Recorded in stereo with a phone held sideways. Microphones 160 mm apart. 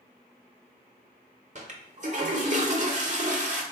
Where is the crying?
I don't hear crying.